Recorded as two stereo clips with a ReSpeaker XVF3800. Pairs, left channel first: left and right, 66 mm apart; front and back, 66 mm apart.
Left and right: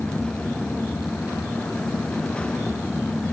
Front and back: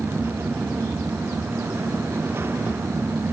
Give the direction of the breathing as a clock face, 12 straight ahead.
I don't hear breathing.